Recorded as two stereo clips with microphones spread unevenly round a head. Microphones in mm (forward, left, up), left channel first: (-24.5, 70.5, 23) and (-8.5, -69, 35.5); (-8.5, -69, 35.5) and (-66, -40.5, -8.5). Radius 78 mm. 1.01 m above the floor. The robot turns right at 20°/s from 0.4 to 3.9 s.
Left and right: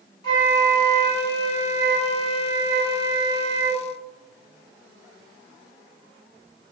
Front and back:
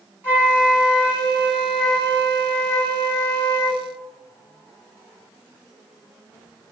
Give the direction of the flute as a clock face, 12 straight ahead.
4 o'clock.